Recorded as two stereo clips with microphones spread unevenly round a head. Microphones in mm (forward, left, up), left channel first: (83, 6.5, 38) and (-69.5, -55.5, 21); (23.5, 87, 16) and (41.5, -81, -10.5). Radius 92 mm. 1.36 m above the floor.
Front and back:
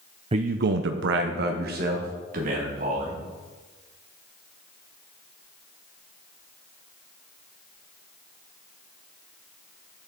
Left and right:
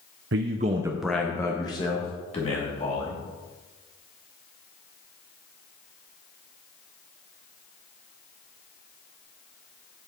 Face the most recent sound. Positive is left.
turn(degrees=155)